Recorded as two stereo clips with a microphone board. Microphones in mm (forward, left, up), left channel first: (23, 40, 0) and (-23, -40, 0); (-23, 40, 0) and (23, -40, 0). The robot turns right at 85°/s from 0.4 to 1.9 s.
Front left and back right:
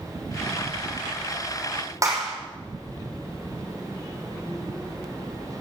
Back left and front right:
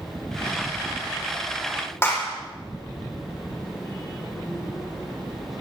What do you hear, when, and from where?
2.0 s a clap: 175° right, 6 m